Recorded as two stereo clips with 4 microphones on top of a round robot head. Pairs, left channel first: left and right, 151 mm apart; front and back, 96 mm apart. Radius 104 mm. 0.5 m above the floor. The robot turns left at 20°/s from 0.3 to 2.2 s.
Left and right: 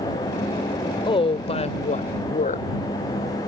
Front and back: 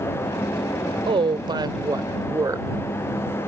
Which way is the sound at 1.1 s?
150° left.